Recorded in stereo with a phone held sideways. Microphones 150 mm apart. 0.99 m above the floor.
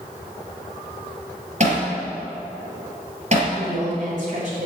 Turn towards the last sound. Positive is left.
turn(degrees=-55)  # may be behind; listen again after turning